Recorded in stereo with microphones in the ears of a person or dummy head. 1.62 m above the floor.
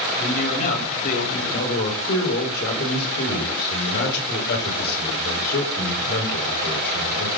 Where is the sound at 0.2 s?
45° left (ahead or behind), 9 m.